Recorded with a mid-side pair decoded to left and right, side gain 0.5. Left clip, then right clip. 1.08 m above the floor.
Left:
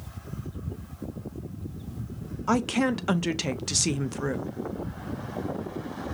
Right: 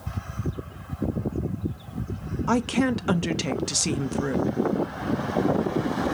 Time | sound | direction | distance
2.5 | a woman speaking | straight ahead | 0.7 m